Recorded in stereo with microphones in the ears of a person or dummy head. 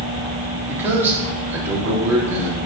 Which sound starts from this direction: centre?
A man speaking, at 0.7 s.